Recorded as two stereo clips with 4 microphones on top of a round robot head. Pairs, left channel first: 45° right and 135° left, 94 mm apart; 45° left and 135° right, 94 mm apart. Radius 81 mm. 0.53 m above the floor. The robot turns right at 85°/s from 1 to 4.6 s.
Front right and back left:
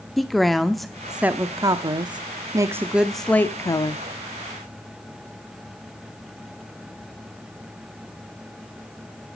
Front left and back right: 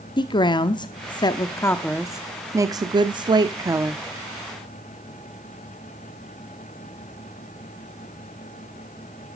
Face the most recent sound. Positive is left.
turn(degrees=-10)